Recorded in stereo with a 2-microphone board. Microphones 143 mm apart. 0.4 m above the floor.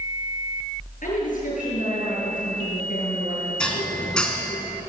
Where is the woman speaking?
65° left (ahead or behind), 7.5 m.